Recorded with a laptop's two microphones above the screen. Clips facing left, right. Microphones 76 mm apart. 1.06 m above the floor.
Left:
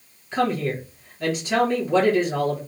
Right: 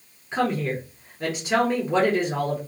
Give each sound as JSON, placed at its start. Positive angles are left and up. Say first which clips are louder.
{"t": 0.3, "sound": "a woman speaking", "louder": "left 1 dB", "side_deg": -20, "distance_m": 1.2}